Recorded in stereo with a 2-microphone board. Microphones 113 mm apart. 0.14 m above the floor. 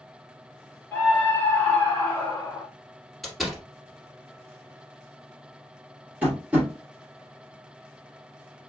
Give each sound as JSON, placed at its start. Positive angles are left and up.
{"t": 0.9, "sound": "a scream", "side_deg": 15, "distance_m": 1.9}
{"t": 3.2, "sound": "a door slam", "side_deg": 0, "distance_m": 2.0}
{"t": 6.2, "sound": "tapping", "side_deg": -15, "distance_m": 1.9}